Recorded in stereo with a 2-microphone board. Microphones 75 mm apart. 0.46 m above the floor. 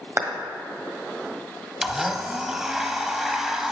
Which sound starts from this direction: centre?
A blender, at 1.8 s.